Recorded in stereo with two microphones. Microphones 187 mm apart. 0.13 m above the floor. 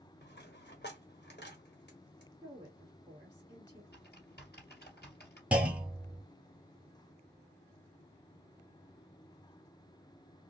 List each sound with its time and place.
0.2 s a dropped coin: 70° left (ahead or behind), 1.2 m
2.4 s a woman speaking: 25° right (ahead or behind), 2.5 m
3.9 s typing on a keyboard: 60° left (ahead or behind), 2.5 m
5.5 s a clunk: 5° right (ahead or behind), 0.7 m